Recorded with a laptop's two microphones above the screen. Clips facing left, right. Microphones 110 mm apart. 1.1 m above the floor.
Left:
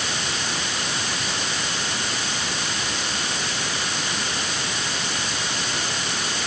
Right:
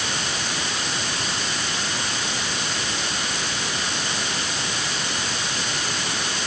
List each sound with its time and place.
Only background noise.